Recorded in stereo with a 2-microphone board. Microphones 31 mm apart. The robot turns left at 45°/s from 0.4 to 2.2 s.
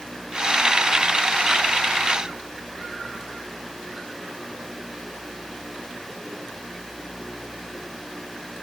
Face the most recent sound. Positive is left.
No sound to turn to.